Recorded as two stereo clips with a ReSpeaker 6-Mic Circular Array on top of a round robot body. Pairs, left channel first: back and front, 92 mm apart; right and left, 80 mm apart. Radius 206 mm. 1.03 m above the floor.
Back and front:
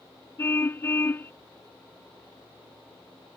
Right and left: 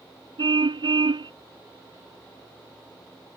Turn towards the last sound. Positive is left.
turn(degrees=115)